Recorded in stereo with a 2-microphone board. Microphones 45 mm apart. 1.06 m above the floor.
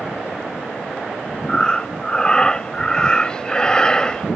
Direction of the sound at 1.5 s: 15° left (ahead or behind).